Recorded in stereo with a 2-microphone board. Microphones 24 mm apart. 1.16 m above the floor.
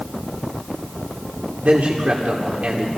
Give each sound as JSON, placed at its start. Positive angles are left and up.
{"t": 1.6, "sound": "a man speaking", "side_deg": -80, "distance_m": 3.0}